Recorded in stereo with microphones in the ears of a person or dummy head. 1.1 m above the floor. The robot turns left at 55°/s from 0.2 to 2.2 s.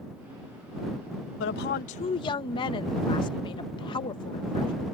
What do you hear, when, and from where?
1.4 s a woman speaking: 65° left; by 4.7 s 20° left